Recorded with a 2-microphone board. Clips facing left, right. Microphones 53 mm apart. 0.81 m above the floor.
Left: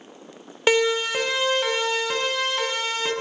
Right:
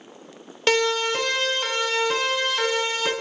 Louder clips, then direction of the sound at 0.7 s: Left 1 dB; 15° left (ahead or behind).